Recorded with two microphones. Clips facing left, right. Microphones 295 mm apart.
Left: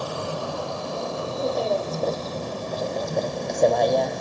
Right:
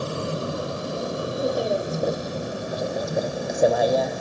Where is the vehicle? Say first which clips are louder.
Right 2 dB; 25° right (ahead or behind); by 4.2 s 5° right (ahead or behind).